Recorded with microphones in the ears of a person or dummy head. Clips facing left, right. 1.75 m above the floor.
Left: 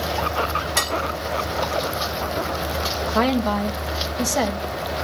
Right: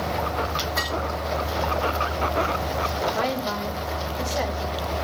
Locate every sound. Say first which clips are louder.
0.8 s dishes clattering: left 3 dB; 45° left (ahead or behind), 3 m
3.1 s a woman speaking: left 6 dB; 60° left (ahead or behind), 1.9 m